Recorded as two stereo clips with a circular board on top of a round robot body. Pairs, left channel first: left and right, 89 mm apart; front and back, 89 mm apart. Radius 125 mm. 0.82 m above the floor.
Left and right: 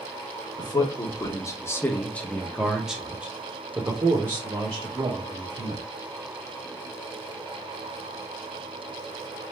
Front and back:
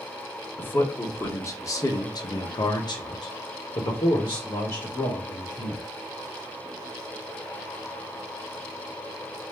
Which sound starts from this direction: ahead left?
A man speaking, at 0.6 s.